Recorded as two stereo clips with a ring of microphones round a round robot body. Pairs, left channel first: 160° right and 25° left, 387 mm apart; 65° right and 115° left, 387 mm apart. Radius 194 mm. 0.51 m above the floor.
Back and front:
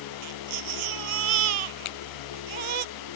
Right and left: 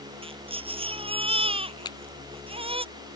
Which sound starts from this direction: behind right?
A finger snap, at 1.9 s.